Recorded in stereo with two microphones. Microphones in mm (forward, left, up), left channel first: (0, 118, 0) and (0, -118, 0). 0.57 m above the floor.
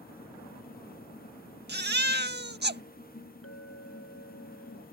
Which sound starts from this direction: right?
A baby crying, at 1.7 s.